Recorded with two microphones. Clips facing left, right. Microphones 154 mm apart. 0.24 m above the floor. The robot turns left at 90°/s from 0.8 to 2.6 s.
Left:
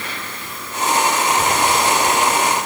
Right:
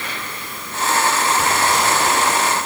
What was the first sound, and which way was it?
Only background noise.